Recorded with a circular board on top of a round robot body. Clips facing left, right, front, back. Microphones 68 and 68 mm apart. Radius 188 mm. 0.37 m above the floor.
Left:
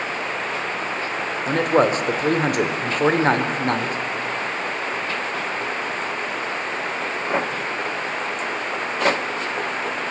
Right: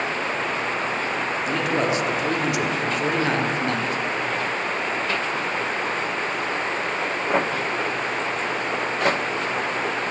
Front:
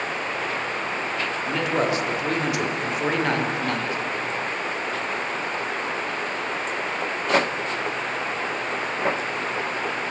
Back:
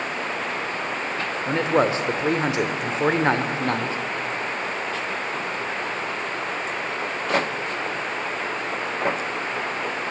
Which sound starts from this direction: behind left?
A man speaking, at 1.5 s.